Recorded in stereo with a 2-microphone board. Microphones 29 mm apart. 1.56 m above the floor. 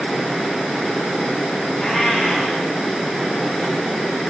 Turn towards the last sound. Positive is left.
turn(degrees=10)  # may be behind; listen again after turning